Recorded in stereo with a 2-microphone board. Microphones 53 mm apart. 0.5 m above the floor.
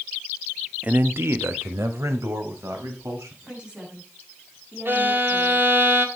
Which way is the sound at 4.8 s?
50° right (ahead or behind).